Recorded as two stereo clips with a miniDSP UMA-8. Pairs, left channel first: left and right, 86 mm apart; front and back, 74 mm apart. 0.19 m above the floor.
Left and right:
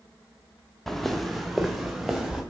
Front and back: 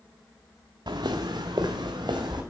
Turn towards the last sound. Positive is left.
turn(degrees=-175)